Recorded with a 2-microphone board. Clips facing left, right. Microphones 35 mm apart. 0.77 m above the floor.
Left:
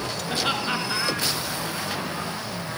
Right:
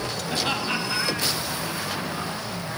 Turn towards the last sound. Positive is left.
turn(degrees=15)  # may be behind; listen again after turning